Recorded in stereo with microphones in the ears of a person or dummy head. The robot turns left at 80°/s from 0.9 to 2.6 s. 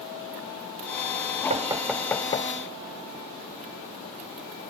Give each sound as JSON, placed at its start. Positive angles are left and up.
{"t": 1.5, "sound": "knocking", "side_deg": -40}